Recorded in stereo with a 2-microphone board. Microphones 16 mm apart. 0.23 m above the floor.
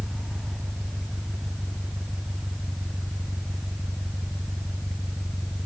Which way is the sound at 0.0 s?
20° left (ahead or behind).